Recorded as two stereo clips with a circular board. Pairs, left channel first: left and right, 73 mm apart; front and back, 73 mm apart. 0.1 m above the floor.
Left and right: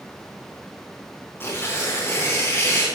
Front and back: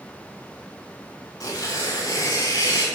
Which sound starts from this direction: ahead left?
Tearing paper, at 1.4 s.